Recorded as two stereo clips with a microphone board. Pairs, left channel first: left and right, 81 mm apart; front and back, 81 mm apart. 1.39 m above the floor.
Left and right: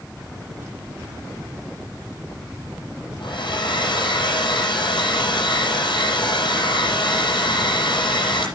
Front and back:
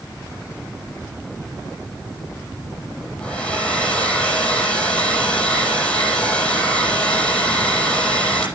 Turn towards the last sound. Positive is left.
turn(degrees=75)